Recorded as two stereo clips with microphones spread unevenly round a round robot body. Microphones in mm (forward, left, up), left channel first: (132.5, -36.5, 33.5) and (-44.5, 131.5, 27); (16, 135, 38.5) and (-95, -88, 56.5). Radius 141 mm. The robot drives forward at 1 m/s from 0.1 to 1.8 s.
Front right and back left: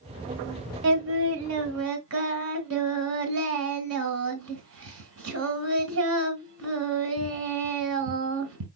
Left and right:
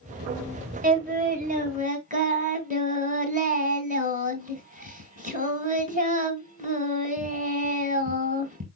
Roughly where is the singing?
Behind.